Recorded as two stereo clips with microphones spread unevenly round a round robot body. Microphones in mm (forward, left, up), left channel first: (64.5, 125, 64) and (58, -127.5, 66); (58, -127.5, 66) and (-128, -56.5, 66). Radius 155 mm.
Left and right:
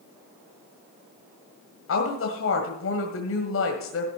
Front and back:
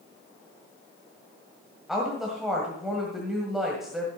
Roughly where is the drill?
No drill in this recording.